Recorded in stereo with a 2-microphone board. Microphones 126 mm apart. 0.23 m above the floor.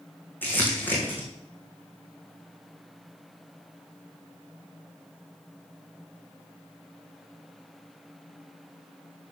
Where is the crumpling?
15° left (ahead or behind), 3.5 m.